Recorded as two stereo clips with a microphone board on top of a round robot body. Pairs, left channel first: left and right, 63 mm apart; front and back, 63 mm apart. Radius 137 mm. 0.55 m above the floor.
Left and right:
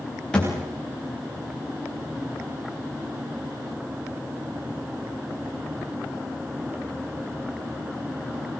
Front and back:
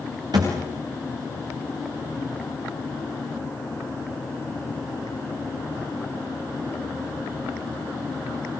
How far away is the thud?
About 9.5 m.